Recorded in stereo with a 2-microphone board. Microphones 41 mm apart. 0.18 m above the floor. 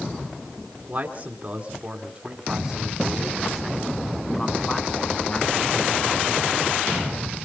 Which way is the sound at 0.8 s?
40° right (ahead or behind).